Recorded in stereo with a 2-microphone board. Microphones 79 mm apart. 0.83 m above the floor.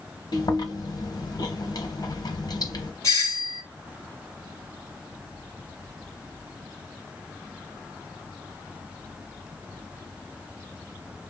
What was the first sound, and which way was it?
Chewing, 55° left (ahead or behind).